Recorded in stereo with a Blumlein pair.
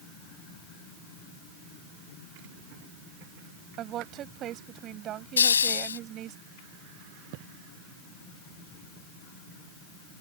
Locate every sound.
3.8 s a woman speaking: 30° right
5.4 s a hiss: 70° left